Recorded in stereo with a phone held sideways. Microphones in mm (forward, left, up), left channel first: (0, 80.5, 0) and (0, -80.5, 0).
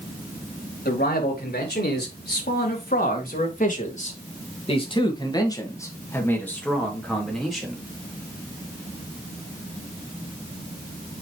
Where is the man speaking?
85° left, 2.5 m; by 7.8 s centre (ahead or behind), 3 m.